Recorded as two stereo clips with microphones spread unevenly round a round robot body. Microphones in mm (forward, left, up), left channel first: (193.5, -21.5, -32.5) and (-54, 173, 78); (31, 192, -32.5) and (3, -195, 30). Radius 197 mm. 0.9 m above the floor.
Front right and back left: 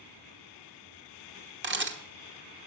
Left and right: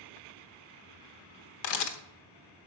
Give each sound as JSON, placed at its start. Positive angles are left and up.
{"t": 1.6, "sound": "a camera shutter", "azimuth_deg": 90, "distance_m": 1.2}